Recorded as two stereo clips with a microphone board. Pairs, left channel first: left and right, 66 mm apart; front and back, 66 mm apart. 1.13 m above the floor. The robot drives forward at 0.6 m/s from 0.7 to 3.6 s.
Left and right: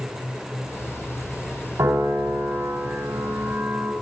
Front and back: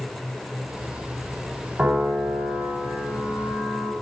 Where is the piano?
115° right, 5 m; by 3.9 s 125° right, 5.5 m.